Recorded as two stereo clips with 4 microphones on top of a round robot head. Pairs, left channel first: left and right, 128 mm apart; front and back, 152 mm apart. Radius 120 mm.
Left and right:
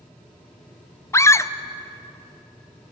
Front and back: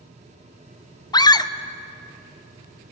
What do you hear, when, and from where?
1.1 s a scream: 40° left, 0.8 m